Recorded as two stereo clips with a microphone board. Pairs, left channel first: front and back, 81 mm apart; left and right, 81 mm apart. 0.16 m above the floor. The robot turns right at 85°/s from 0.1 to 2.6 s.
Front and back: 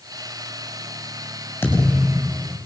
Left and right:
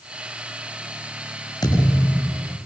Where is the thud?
65° left, 8.5 m; by 2.6 s 145° left, 8.5 m.